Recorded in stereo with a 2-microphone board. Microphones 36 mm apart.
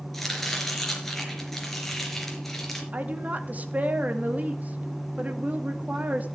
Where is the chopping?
5° left (ahead or behind), 4 m.